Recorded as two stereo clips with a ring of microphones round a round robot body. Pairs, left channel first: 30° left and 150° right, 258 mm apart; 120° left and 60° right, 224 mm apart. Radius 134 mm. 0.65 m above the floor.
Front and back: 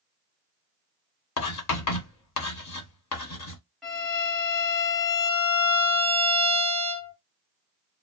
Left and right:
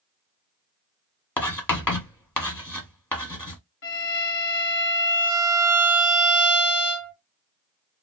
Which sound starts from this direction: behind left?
A violin, at 3.8 s.